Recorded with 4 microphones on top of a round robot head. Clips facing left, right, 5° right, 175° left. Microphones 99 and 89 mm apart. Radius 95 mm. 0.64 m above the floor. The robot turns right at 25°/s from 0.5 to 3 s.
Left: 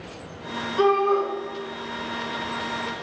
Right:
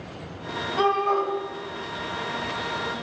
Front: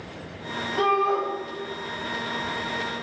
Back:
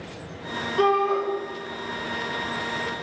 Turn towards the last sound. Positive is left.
turn(degrees=0)